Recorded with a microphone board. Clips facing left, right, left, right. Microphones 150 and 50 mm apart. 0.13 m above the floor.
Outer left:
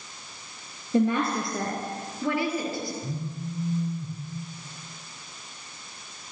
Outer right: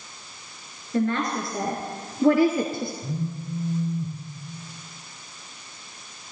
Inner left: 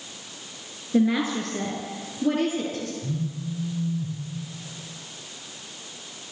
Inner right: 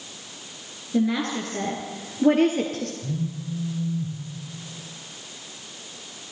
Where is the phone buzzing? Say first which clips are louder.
Outer right 3 dB, even; 15° right (ahead or behind), 3 m.